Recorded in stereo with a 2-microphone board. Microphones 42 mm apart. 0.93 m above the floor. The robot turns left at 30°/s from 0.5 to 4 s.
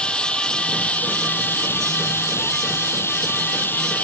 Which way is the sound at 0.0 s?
150° left.